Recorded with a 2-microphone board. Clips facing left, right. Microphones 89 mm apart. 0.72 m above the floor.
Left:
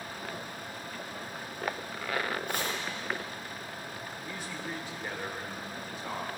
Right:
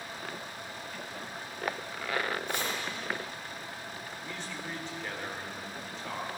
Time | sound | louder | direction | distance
2.5 | chopping | even | 50° left (ahead or behind) | 5.5 m
4.2 | a man speaking | left 1 dB | 10° left (ahead or behind) | 2 m